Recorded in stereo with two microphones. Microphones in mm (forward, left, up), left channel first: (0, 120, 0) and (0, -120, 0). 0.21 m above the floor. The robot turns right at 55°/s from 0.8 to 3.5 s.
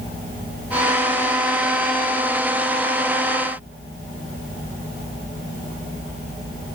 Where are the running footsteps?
I don't hear running footsteps.